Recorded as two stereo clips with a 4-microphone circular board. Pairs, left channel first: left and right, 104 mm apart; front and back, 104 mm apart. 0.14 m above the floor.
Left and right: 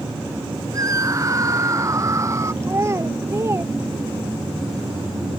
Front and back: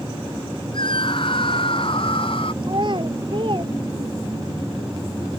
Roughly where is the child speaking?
Behind right.